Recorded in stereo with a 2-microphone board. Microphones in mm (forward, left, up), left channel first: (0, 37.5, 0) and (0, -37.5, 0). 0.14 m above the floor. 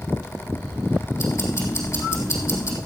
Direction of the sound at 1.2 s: 40° left (ahead or behind).